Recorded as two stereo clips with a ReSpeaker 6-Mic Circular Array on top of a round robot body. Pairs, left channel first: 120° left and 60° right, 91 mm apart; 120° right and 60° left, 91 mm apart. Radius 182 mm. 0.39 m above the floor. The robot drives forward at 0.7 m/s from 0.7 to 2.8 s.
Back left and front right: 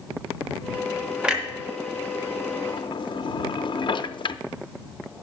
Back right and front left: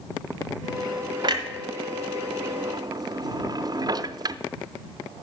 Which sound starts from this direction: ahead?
A clunk, at 1.2 s.